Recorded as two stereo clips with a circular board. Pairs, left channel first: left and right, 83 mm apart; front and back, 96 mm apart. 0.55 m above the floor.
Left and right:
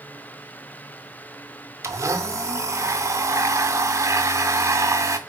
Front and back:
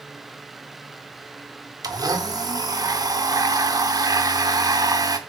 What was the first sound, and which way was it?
A blender, 135° right.